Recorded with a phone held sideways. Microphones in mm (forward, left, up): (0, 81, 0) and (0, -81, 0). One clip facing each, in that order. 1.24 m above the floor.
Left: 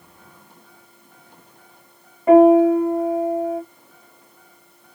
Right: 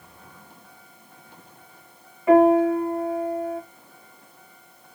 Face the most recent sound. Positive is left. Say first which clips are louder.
# left 5 dB
turn(degrees=35)  # may be behind; listen again after turning